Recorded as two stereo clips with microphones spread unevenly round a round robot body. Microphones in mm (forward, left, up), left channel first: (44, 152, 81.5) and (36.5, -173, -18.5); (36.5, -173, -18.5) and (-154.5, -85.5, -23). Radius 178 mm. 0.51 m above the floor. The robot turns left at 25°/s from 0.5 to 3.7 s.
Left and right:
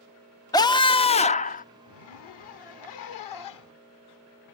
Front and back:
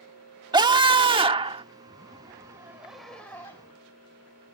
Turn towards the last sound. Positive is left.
turn(degrees=50)